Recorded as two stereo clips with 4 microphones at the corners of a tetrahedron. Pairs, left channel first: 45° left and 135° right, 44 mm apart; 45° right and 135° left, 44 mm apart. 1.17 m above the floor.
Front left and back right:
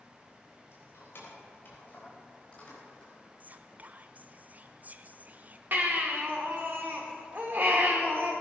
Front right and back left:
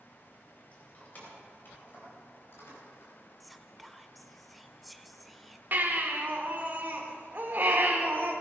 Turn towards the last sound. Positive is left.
turn(degrees=-175)